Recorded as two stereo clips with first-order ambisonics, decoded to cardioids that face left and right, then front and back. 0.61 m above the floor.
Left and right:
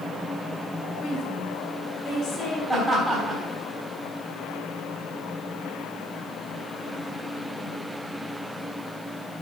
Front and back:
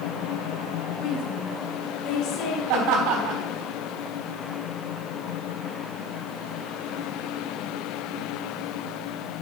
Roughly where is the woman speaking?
Ahead left.